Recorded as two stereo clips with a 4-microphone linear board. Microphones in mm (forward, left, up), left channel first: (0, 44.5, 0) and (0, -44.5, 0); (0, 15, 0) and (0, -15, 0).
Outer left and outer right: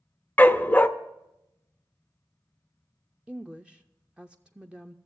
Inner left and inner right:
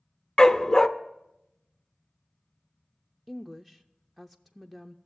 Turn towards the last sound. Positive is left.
turn(degrees=-10)  # may be behind; listen again after turning